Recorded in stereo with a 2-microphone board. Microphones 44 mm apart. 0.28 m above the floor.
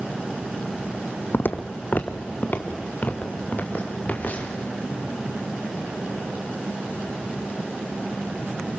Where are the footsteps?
55° left (ahead or behind), 0.9 m; by 4.6 s 35° left (ahead or behind), 4 m.